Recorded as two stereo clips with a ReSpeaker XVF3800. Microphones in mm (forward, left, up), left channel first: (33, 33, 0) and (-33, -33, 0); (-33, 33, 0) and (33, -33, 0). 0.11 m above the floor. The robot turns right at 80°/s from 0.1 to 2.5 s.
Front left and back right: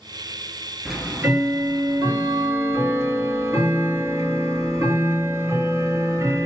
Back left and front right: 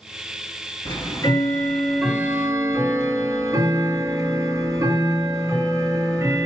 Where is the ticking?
135° left, 1.2 m; by 6.5 s 90° right, 1.2 m.